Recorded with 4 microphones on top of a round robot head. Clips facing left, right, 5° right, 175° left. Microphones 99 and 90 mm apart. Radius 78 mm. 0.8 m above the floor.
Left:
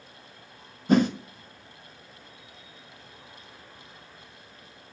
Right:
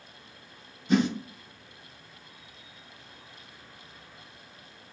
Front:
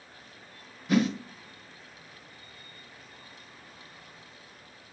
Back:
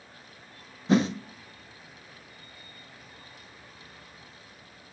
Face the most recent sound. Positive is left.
turn(degrees=120)